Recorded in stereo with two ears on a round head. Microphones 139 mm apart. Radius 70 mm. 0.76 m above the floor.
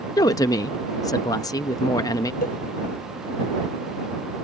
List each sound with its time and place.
0.2 s a woman speaking: 20° left (ahead or behind)
2.4 s a cowbell: 60° left (ahead or behind)